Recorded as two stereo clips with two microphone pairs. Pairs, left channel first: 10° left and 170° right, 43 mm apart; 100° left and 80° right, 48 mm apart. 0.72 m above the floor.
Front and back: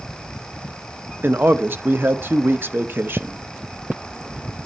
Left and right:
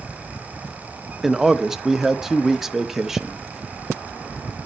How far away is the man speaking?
About 0.7 m.